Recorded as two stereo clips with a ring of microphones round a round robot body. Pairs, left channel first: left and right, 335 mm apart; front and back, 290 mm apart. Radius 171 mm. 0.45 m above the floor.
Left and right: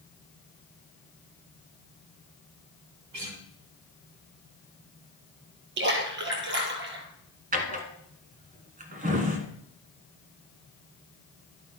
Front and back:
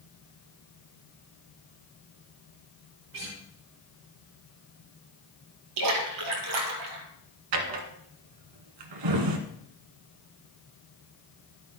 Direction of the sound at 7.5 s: 155° right.